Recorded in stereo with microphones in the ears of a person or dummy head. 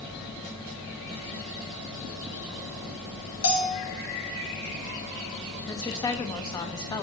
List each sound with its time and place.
3.4 s a bell: 70° left (ahead or behind), 1.4 m
5.7 s a woman speaking: 15° left (ahead or behind), 0.9 m